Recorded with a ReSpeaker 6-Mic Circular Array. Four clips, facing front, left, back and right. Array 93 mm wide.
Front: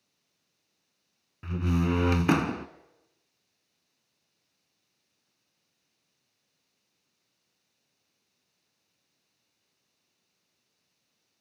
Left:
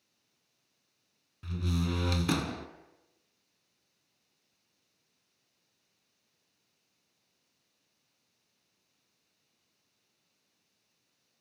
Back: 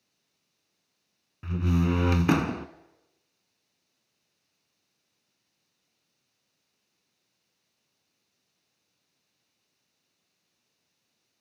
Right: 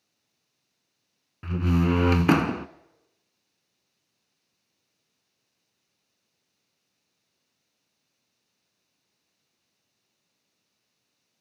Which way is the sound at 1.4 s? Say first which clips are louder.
Right 10 dB, back 1 dB; 85° right.